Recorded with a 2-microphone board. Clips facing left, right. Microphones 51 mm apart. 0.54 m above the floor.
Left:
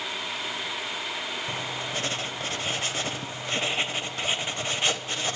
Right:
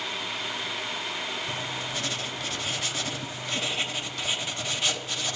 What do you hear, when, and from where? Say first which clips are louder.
1.5 s writing: left 1 dB; 35° left (ahead or behind), 1.0 m